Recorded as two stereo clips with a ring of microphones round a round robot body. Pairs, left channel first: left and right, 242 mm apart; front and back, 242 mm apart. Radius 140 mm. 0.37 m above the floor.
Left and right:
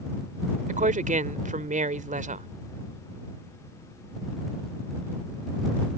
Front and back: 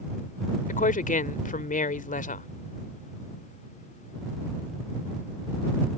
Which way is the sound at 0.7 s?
45° right.